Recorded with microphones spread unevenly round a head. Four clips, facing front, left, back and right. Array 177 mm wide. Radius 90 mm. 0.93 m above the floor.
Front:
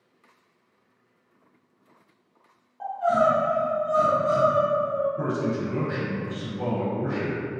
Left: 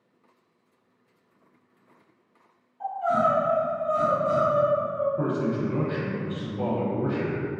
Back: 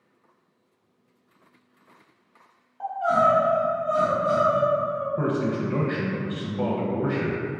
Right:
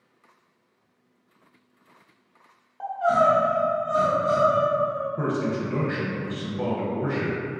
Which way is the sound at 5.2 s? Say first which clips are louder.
Even, back 1 dB; 155° right.